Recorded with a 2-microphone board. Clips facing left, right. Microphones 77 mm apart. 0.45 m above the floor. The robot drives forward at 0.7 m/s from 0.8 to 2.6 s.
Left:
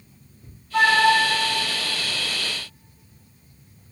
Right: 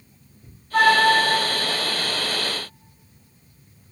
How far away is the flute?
About 1.7 m.